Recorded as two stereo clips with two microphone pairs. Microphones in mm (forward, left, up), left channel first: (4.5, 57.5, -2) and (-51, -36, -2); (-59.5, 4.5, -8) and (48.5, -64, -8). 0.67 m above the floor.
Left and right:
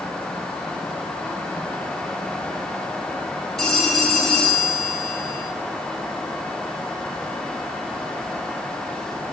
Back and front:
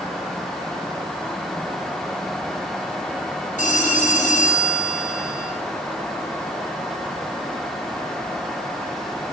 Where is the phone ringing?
145° left, 4 m.